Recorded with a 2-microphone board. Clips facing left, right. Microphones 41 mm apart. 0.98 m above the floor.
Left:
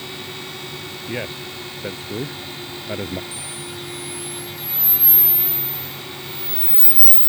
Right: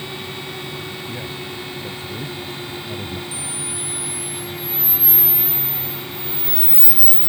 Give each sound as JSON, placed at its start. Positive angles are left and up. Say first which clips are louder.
{"t": 1.1, "sound": "a man speaking", "louder": "left 1 dB", "side_deg": 35}
{"t": 3.3, "sound": "a camera shutter", "louder": "right 2 dB", "side_deg": 45}